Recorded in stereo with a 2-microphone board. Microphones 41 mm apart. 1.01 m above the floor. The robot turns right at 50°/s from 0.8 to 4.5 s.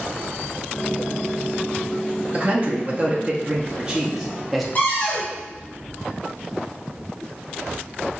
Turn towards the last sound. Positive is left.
turn(degrees=45)  # may be behind; listen again after turning